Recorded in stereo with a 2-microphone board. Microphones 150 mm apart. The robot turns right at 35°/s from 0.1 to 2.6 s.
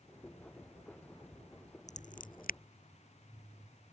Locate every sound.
1.9 s scissors: 50° left (ahead or behind); by 2.6 s 75° left (ahead or behind)